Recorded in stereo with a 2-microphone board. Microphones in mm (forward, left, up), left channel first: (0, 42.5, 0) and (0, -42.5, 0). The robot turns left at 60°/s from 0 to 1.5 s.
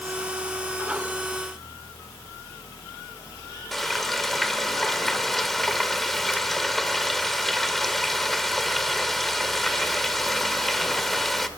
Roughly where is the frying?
Centre.